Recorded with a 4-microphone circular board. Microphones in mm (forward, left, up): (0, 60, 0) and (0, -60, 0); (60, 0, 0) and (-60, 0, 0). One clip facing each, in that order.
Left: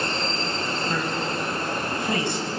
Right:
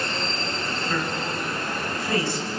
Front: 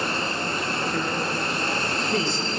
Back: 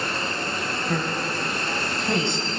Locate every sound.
0.9 s a man speaking: 155° left, 6 m